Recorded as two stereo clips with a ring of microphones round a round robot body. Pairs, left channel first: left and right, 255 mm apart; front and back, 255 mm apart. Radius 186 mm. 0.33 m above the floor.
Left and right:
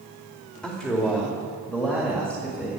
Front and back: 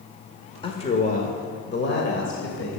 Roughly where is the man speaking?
Ahead.